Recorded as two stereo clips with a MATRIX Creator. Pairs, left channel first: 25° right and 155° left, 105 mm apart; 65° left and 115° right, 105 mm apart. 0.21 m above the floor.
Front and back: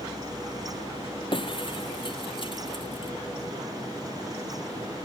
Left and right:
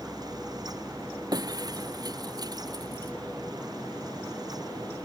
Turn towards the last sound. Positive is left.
turn(degrees=-60)